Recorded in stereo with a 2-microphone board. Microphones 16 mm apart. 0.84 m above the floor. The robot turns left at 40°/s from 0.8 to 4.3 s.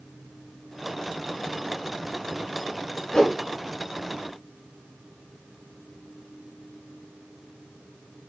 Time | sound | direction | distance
3.1 | a whoosh | 65° left (ahead or behind) | 3.5 m